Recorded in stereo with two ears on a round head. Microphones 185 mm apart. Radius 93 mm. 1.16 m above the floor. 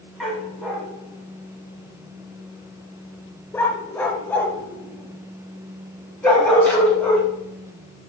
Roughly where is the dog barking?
Centre.